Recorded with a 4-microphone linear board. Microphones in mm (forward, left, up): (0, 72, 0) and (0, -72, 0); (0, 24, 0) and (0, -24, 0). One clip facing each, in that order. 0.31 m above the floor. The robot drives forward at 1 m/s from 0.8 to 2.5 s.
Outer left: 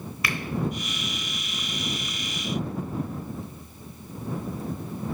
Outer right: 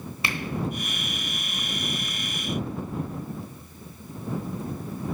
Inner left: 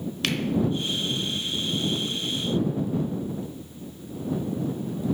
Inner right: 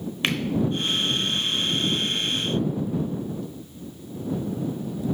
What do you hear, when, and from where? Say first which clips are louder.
0.2 s a finger snap: even, inner right 2 dB; 25° right (ahead or behind), 0.9 m